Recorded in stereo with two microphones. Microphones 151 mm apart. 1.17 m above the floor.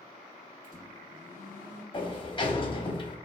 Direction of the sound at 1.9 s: 35° left (ahead or behind).